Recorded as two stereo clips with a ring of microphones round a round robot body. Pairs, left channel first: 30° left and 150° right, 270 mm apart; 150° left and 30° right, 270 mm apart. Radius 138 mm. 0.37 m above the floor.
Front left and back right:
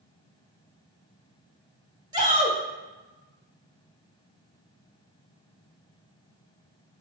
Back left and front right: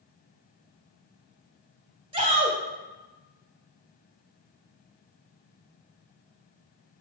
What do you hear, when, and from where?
2.1 s a shout: 85° right, 1.5 m